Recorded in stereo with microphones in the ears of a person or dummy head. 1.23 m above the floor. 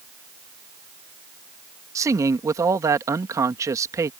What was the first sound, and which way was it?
A man speaking, 15° right (ahead or behind).